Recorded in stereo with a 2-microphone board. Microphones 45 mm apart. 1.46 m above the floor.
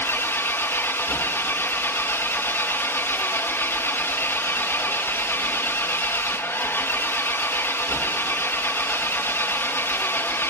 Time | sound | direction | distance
0.0 | an engine running | 55° left (ahead or behind) | 1.1 m